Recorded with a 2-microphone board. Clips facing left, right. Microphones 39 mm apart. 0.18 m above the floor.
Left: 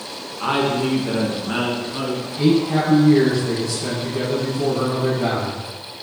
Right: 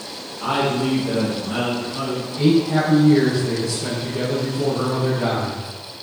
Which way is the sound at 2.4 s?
5° left (ahead or behind).